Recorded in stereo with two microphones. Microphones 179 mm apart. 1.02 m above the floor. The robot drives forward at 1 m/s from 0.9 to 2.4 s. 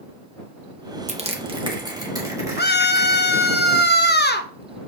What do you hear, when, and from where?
1.1 s crushing: 40° right (ahead or behind), 1.0 m; by 3.5 s 20° right (ahead or behind), 2.0 m
2.6 s a scream: 70° left (ahead or behind), 0.9 m